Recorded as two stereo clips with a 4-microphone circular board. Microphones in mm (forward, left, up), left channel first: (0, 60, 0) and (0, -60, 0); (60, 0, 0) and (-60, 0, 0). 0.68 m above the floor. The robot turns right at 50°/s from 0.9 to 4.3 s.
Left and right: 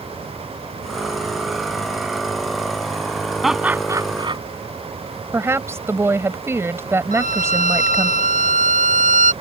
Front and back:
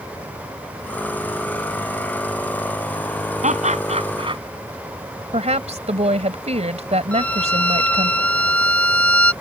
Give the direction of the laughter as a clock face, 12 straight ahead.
6 o'clock.